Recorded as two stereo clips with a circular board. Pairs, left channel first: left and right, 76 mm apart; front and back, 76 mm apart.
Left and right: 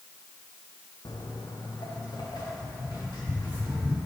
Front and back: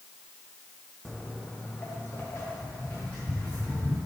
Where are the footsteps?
85° left, 0.7 m; by 4.0 s 65° left, 4.5 m.